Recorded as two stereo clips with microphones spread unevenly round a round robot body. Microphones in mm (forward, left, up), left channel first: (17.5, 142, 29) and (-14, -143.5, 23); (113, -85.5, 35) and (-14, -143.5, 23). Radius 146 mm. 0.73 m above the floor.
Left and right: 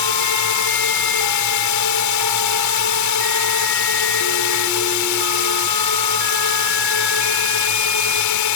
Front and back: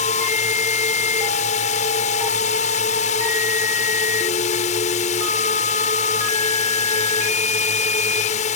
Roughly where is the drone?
Left.